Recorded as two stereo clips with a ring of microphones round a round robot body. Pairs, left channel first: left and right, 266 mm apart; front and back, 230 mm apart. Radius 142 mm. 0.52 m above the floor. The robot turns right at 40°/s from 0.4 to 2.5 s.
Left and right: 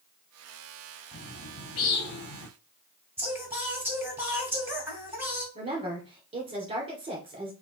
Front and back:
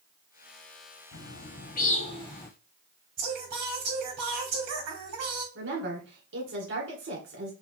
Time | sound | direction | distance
1.1 | a bird | 25° left | 1.2 m
3.2 | singing | 170° right | 2.5 m
5.5 | a woman speaking | 155° right | 2.0 m